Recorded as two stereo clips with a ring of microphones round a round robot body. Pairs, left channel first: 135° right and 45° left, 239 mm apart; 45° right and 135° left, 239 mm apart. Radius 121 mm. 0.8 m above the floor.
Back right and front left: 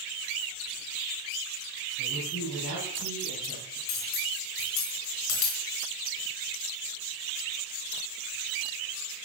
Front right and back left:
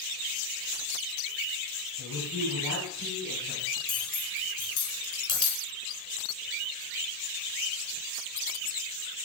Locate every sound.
2.0 s a man speaking: 75° right, 5 m; by 3.8 s 85° right, 5.5 m
3.9 s cutlery clinking: 115° right, 4 m